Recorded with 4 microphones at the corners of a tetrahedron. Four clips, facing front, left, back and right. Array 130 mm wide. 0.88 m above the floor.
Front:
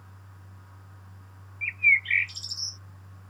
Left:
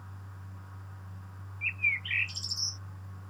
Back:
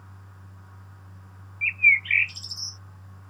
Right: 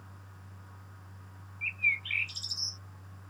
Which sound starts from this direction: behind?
A bird, at 1.6 s.